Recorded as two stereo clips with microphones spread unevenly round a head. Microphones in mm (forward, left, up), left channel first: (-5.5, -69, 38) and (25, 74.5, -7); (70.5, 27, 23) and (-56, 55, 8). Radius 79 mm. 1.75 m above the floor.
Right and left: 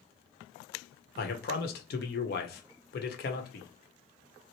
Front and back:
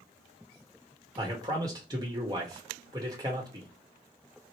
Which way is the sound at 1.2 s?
125° right.